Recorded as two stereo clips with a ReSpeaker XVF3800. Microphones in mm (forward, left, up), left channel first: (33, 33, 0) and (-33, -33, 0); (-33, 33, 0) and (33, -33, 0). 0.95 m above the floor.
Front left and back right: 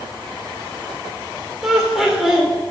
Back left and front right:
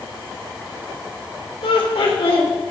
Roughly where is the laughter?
Behind left.